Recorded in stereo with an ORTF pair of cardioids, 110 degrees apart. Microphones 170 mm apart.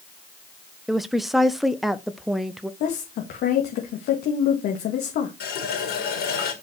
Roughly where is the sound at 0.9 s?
Ahead.